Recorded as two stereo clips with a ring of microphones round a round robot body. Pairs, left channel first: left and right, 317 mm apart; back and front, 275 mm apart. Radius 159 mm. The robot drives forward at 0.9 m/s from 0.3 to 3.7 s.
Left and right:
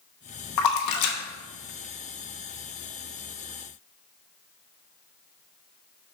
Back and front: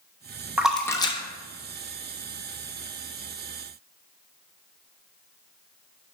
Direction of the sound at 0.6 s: 85° left.